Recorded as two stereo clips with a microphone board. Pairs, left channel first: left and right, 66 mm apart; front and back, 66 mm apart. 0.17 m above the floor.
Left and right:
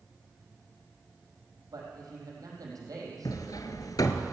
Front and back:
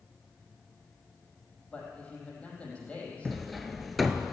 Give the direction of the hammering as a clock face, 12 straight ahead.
9 o'clock.